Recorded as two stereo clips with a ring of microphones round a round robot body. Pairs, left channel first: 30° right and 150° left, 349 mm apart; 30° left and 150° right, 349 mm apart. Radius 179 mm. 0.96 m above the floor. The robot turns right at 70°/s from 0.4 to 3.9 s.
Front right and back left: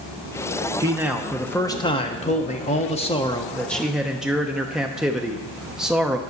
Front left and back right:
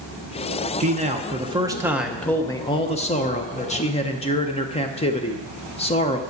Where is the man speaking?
150° right, 0.8 m; by 6.2 s 65° left, 0.8 m.